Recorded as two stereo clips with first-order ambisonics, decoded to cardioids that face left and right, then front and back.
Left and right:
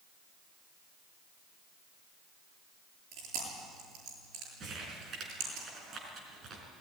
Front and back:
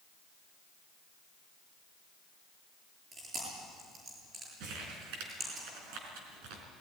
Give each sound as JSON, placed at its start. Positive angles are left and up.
{"t": 3.1, "sound": "chewing", "azimuth_deg": -120, "distance_m": 8.0}
{"t": 4.6, "sound": "crumpling", "azimuth_deg": -155, "distance_m": 4.0}